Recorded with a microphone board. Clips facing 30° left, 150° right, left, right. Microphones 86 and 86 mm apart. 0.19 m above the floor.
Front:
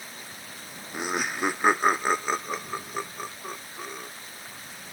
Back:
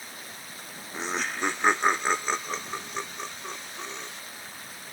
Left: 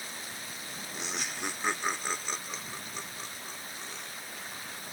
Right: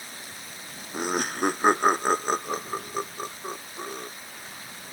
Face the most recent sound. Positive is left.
turn(degrees=-50)